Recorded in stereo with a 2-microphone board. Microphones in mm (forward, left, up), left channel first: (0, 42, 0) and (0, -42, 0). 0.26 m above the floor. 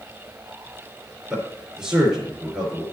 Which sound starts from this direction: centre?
A man speaking, at 1.3 s.